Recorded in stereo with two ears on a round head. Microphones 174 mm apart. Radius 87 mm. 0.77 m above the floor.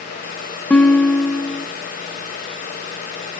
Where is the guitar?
5° left (ahead or behind), 0.9 m.